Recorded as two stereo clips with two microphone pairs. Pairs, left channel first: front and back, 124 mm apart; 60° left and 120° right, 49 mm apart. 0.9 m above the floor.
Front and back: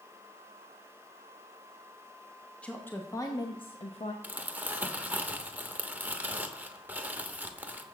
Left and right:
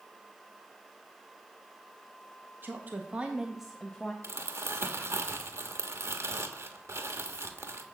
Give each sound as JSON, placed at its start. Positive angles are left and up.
{"t": 2.6, "sound": "a woman speaking", "azimuth_deg": -80, "distance_m": 1.2}
{"t": 4.2, "sound": "crumpling", "azimuth_deg": -105, "distance_m": 1.0}